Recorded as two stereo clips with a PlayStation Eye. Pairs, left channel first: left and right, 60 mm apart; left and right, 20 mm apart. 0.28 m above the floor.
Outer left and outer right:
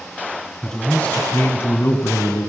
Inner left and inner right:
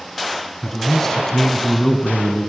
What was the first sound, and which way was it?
A man speaking, 5° left (ahead or behind).